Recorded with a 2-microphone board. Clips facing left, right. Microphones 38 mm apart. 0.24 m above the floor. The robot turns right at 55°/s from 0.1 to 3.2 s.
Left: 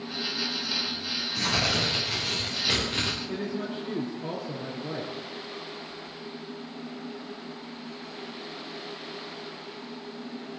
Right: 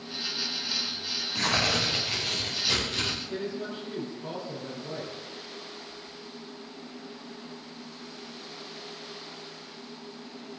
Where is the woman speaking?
70° left (ahead or behind), 4 m.